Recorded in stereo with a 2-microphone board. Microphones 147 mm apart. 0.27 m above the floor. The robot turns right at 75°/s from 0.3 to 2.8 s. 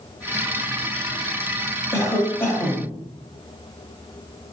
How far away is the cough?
About 1.0 m.